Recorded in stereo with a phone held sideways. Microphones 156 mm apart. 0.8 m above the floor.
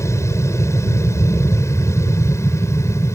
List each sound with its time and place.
0.0 s an aircraft: 20° left (ahead or behind)